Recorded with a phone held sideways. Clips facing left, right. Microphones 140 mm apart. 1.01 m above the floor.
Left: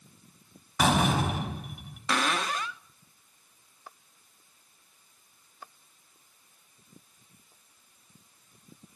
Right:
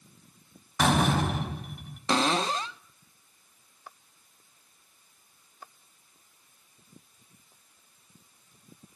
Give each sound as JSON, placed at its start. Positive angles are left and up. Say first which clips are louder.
{"t": 0.8, "sound": "a door slam", "louder": "even", "side_deg": 5, "distance_m": 4.5}
{"t": 2.1, "sound": "a cupboard door", "louder": "right 3 dB", "side_deg": -30, "distance_m": 0.7}